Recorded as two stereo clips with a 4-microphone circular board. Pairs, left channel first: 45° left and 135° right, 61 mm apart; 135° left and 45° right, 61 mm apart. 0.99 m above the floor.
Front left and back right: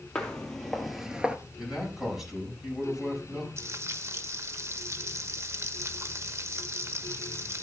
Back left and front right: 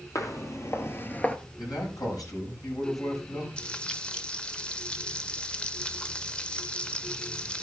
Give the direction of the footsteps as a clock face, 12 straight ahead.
8 o'clock.